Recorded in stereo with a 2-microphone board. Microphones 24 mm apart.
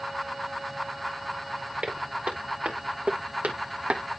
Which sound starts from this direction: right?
Footsteps, at 1.8 s.